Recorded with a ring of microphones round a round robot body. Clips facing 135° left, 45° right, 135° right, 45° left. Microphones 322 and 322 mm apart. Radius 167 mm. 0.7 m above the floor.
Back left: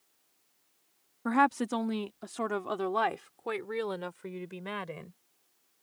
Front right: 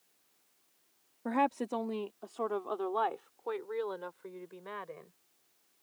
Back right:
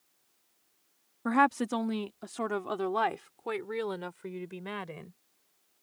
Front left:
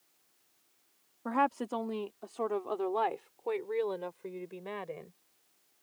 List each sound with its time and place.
1.2 s a woman speaking: 170° right; by 5.2 s 165° left